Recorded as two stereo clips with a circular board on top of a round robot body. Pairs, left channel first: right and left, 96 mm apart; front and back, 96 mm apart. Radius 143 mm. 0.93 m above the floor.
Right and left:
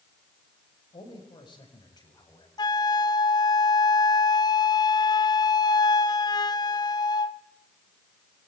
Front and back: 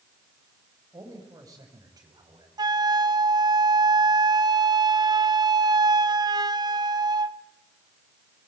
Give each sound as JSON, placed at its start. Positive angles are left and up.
{"t": 0.9, "sound": "a man speaking", "azimuth_deg": -125, "distance_m": 7.0}
{"t": 2.6, "sound": "a flute", "azimuth_deg": -135, "distance_m": 1.1}